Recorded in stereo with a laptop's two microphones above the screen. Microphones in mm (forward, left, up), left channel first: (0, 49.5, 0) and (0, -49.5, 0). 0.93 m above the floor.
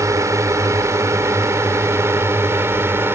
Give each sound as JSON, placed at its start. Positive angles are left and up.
{"t": 0.0, "sound": "a drone", "side_deg": -30}